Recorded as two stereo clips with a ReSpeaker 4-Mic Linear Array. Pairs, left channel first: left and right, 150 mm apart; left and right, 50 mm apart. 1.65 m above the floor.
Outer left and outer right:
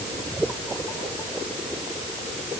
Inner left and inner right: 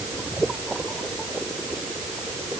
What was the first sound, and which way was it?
Only background noise.